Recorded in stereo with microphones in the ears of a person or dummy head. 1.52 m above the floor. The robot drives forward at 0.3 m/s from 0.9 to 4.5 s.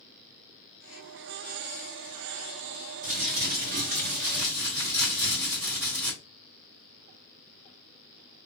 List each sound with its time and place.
3.0 s crumpling: 35° right (ahead or behind), 1.0 m; by 6.1 s 25° right (ahead or behind), 1.4 m